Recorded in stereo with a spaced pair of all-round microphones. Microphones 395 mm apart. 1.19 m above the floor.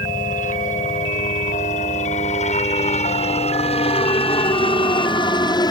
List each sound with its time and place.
0.0 s a helicopter: 20° left (ahead or behind); by 5.7 s 10° left (ahead or behind)